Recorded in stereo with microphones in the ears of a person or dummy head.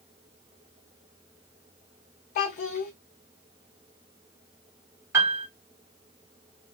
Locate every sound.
2.4 s a child speaking: 40° left (ahead or behind), 0.8 m
5.1 s a piano: 10° right (ahead or behind), 0.8 m